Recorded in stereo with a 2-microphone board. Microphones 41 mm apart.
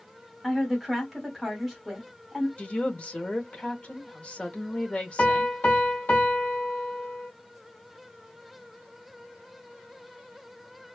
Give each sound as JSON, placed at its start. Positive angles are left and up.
{"t": 0.4, "sound": "a woman speaking", "side_deg": -5, "distance_m": 1.4}
{"t": 2.6, "sound": "a woman speaking", "side_deg": 35, "distance_m": 0.9}
{"t": 5.2, "sound": "a piano", "side_deg": 55, "distance_m": 1.1}